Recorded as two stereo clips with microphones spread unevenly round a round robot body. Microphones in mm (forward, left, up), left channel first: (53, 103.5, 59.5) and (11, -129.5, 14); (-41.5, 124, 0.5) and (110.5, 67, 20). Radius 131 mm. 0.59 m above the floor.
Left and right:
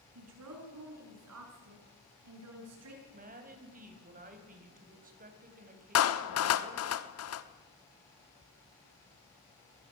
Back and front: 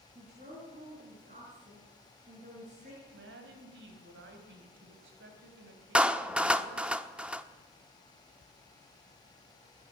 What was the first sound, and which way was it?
A woman speaking, 85° right.